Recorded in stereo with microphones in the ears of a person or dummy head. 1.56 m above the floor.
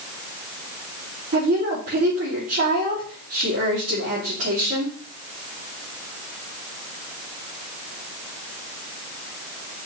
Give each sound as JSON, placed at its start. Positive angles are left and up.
{"t": 1.3, "sound": "a woman speaking", "side_deg": -45, "distance_m": 3.5}